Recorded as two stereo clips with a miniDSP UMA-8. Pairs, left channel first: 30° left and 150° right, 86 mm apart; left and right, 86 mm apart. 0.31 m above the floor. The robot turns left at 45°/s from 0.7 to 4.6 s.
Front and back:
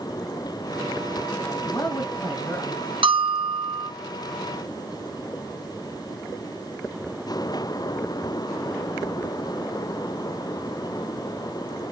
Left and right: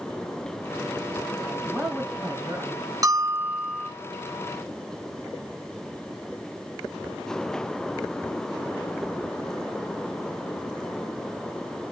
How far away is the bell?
About 0.6 m.